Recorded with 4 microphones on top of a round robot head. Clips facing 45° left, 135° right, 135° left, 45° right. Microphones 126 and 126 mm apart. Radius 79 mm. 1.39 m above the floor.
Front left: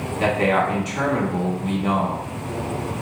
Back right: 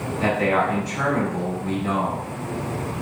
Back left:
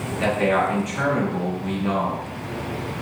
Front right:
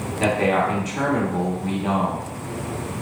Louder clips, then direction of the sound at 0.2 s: Front left 1 dB, front right 1 dB; 10° left.